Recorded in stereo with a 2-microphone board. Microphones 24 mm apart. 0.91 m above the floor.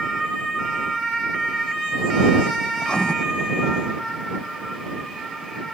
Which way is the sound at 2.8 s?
40° left (ahead or behind).